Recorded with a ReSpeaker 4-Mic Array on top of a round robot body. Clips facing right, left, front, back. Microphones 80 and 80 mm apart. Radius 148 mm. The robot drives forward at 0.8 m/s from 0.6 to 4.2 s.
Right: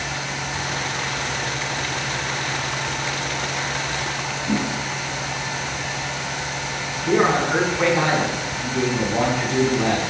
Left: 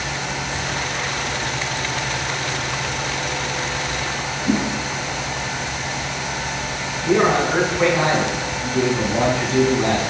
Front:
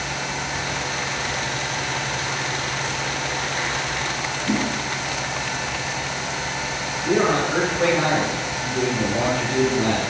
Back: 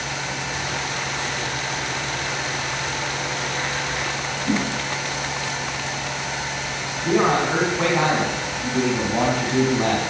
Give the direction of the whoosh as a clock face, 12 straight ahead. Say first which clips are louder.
Left 3 dB, even; 7 o'clock.